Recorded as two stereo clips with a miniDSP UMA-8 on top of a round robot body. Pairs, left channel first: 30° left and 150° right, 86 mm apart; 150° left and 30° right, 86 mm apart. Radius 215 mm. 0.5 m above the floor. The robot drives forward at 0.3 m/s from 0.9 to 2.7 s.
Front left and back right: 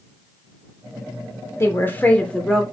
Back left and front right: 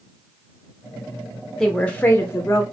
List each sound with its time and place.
1.6 s a woman speaking: 70° left, 0.8 m; by 2.6 s 115° left, 0.8 m